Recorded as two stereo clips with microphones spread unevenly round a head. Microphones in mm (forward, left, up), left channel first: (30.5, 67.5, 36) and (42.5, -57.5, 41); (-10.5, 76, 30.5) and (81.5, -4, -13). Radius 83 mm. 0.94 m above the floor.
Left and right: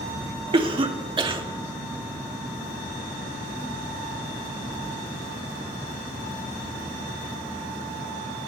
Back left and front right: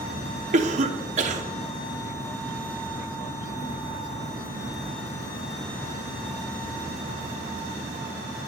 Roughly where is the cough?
Ahead right.